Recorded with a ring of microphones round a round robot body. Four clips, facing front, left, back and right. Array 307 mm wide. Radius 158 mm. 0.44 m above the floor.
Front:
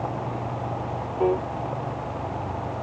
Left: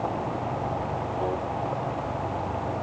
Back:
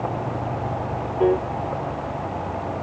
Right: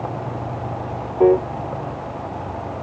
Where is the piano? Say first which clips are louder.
Right 17 dB, back 3 dB; 105° right.